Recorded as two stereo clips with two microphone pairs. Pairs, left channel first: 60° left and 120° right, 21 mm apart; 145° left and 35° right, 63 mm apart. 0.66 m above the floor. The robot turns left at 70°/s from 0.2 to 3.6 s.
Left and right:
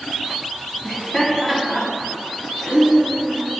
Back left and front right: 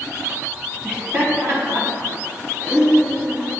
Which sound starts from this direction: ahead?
Laughter, at 0.8 s.